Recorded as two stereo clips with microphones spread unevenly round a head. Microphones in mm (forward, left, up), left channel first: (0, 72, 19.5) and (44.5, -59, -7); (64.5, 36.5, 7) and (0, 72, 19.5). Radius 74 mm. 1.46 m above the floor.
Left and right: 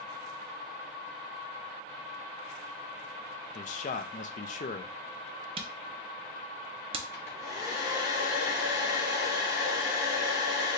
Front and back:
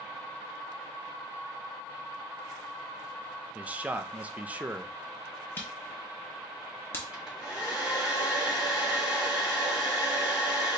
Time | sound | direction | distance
3.5 | a man speaking | 85° left | 0.6 m
5.6 | a camera shutter | 85° right | 0.5 m
7.1 | a hair dryer | 70° left | 2.5 m